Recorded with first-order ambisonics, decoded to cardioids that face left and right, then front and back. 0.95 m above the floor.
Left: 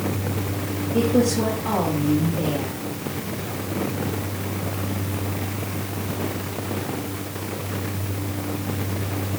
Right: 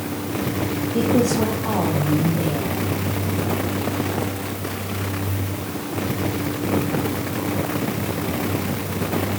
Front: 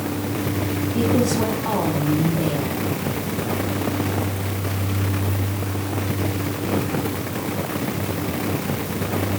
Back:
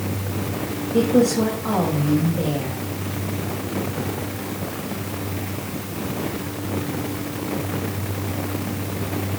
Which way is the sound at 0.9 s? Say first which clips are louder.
Right 1 dB, back 4 dB; straight behind.